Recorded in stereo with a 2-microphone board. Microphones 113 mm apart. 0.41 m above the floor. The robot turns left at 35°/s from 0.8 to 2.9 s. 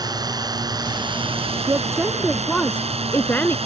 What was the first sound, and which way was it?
A drone, 40° right.